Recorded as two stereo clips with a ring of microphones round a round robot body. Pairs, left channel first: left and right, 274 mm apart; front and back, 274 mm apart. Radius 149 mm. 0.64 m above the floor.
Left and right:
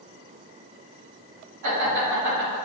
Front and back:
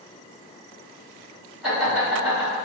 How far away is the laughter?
About 2.0 m.